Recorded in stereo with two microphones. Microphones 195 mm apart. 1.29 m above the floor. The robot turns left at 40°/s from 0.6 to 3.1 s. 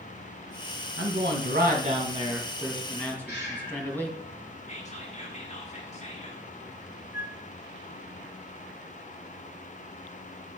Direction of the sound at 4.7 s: 35° left (ahead or behind).